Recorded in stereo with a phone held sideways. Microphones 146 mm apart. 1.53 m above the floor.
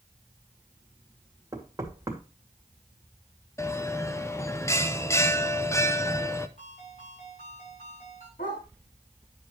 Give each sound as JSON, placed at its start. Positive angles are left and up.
{"t": 1.5, "sound": "knocking", "side_deg": -25, "distance_m": 2.5}
{"t": 3.6, "sound": "a bell", "side_deg": 20, "distance_m": 0.7}
{"t": 6.6, "sound": "a ringtone", "side_deg": 55, "distance_m": 6.5}
{"t": 8.4, "sound": "a dog barking", "side_deg": 75, "distance_m": 4.0}